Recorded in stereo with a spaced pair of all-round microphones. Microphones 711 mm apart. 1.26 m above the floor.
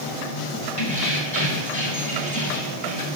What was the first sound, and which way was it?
Keys jangling, 45° left (ahead or behind).